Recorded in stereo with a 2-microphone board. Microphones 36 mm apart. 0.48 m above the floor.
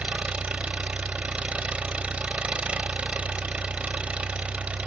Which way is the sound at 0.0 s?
35° right (ahead or behind).